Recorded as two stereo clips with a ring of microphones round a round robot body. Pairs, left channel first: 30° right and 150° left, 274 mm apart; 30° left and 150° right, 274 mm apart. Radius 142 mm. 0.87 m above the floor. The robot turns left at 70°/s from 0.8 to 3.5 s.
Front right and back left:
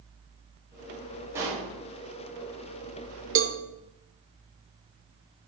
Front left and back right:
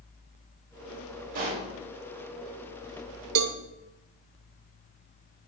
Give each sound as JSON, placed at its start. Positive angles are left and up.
{"t": 1.4, "sound": "a pop", "azimuth_deg": -130, "distance_m": 3.5}
{"t": 3.4, "sound": "a cowbell", "azimuth_deg": -170, "distance_m": 0.7}